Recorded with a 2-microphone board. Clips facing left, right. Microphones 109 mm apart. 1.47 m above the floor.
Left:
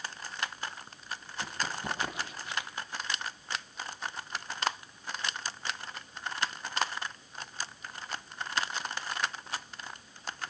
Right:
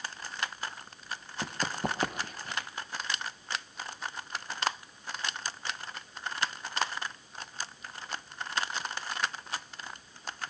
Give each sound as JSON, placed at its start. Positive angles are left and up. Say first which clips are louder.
{"t": 1.4, "sound": "running footsteps", "louder": "right 3 dB", "side_deg": -50, "distance_m": 2.5}